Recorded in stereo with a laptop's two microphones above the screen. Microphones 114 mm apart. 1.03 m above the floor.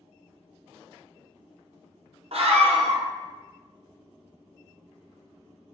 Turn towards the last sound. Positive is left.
turn(degrees=-60)  # may be behind; listen again after turning